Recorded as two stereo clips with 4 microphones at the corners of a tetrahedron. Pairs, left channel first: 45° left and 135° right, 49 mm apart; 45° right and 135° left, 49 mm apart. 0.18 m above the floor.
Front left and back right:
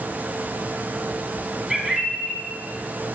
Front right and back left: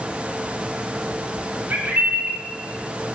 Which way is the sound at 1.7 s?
150° left.